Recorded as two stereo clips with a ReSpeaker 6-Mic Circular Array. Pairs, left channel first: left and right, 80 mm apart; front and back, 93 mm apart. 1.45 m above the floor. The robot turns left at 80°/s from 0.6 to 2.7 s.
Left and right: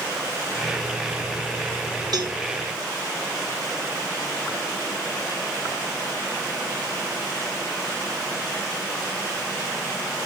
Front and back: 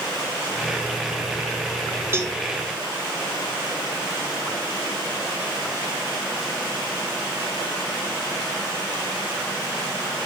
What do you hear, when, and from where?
2.1 s a cowbell: 120° right, 1.7 m; by 2.4 s 140° right, 1.7 m